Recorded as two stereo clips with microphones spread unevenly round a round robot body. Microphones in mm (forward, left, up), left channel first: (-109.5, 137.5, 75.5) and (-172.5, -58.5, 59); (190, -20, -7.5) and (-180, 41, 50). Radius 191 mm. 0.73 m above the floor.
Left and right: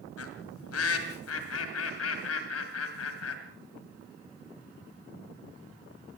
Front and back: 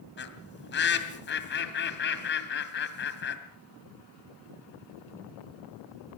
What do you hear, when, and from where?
0.2 s a bird: 55° left, 1.9 m